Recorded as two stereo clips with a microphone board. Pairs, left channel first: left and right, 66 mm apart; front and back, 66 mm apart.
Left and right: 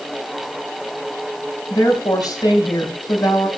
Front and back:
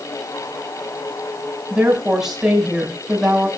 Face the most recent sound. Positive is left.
turn(degrees=100)